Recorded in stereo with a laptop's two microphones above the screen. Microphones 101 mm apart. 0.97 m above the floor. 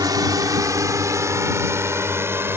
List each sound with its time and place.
0.0 s a drone: 40° right (ahead or behind); by 2.6 s 25° right (ahead or behind)